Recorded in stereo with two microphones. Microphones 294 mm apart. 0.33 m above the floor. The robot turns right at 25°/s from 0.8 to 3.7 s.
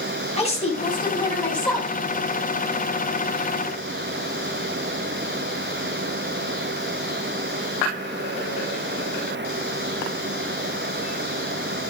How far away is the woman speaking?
About 3 m.